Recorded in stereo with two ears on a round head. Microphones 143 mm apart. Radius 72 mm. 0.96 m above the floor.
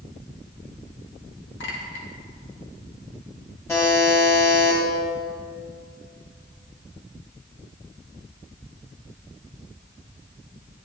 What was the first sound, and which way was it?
A clink, 85° left.